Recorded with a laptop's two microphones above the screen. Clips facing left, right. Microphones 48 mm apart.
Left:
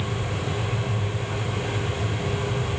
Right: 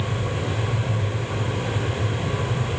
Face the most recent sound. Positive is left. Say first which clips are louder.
# right 2 dB
turn(degrees=-55)  # may be behind; listen again after turning